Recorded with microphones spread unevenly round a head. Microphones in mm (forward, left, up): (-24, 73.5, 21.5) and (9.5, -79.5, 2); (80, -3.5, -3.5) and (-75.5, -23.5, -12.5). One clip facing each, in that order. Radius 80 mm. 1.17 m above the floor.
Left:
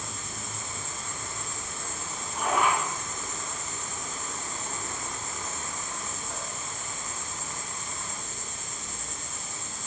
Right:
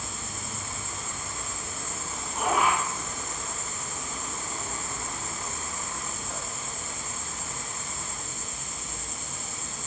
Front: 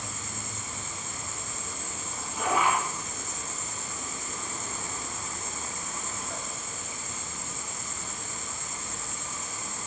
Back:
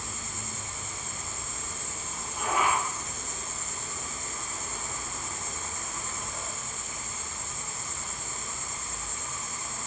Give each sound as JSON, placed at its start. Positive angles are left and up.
{"t": 0.0, "sound": "an insect", "azimuth_deg": 10, "distance_m": 0.7}